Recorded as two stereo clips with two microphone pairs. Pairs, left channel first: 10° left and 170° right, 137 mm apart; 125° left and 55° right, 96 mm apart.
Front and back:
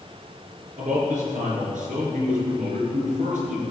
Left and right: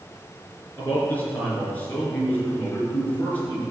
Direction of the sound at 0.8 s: 165° right.